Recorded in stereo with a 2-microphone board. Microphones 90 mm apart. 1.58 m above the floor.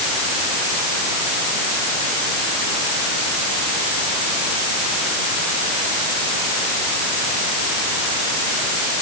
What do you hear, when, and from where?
Only background noise.